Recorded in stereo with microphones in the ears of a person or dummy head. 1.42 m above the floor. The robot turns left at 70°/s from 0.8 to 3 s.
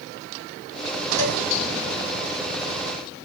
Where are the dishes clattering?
65° left (ahead or behind), 1.5 m; by 1.4 s 70° left (ahead or behind), 1.5 m.